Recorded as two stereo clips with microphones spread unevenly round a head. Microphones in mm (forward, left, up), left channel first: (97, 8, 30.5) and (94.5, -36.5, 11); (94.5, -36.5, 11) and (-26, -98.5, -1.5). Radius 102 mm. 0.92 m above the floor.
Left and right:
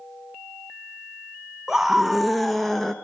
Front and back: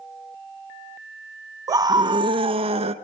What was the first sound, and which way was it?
A scream, 125° right.